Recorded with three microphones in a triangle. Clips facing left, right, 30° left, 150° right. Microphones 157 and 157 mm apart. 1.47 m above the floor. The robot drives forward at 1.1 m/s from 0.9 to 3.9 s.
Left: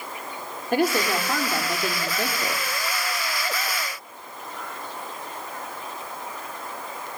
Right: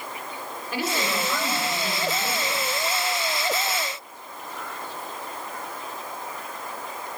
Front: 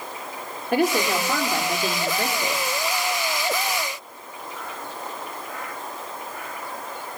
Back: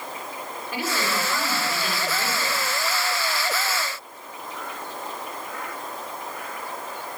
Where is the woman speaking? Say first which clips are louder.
Left 6 dB, front 8 dB; 55° left, 4 m; by 2.6 s 85° left, 3.5 m.